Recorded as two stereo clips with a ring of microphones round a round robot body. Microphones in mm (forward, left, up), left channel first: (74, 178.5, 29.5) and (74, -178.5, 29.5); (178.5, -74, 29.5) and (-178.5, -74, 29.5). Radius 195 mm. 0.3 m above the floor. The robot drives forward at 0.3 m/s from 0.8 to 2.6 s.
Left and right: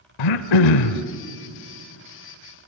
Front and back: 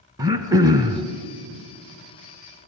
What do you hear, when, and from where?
0.2 s throat clearing: 100° left, 1.0 m; by 1.0 s 105° left, 1.0 m